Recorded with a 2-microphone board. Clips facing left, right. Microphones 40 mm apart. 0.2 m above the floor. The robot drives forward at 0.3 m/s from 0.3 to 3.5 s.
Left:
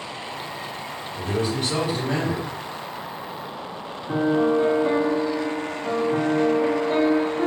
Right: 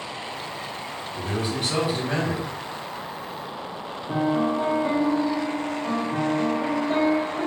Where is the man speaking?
10° right (ahead or behind), 2.0 m.